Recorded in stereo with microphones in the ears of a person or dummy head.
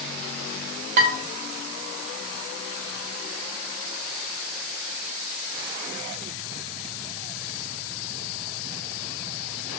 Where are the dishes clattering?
50° right (ahead or behind), 0.9 m.